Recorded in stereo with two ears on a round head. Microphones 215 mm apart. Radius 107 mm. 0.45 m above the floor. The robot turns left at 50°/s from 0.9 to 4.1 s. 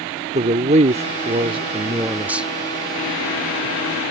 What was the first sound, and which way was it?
A man speaking, 30° right (ahead or behind).